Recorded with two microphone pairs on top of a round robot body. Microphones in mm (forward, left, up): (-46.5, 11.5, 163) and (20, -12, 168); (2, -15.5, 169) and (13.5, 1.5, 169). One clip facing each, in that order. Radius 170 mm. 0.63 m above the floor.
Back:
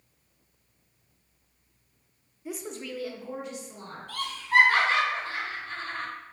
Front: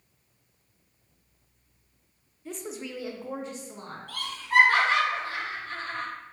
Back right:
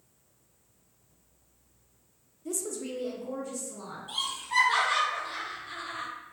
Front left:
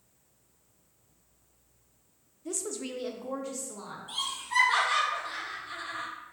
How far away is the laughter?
About 1.9 m.